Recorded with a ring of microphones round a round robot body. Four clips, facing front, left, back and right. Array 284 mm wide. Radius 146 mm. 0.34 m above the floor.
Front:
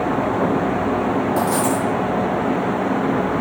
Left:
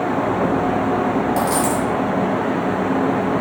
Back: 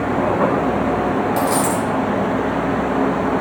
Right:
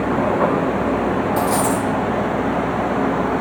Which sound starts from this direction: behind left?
A dropped coin, at 1.4 s.